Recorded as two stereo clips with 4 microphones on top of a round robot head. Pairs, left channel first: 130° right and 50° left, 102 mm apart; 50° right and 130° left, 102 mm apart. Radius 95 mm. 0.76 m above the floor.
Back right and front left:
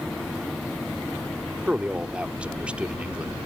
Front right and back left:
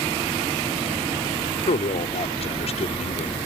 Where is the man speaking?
30° right.